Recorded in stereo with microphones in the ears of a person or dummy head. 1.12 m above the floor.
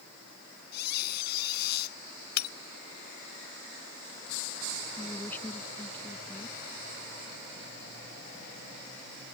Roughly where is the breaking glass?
Left.